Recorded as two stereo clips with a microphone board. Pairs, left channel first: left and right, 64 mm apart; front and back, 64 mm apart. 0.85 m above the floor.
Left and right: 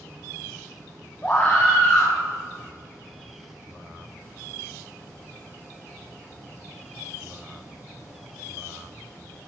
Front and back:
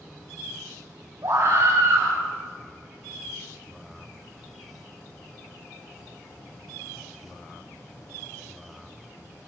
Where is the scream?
150° left, 5 m.